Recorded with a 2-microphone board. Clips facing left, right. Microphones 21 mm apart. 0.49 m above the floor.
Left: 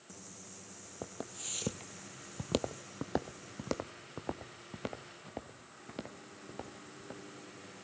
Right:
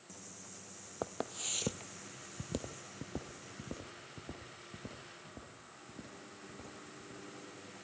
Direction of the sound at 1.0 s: 30° right (ahead or behind).